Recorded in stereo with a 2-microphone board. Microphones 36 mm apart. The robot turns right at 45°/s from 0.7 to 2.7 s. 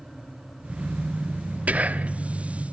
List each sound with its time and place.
1.7 s whispering: 45° right (ahead or behind), 0.9 m